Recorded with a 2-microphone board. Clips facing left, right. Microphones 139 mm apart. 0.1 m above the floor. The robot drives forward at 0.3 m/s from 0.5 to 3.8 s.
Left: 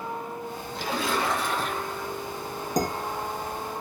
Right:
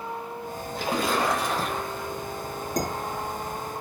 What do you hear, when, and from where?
0.8 s a splash: 50° right (ahead or behind), 0.8 m; by 2.1 s 35° right (ahead or behind), 1.1 m
2.8 s dishes clattering: 10° left (ahead or behind), 1.2 m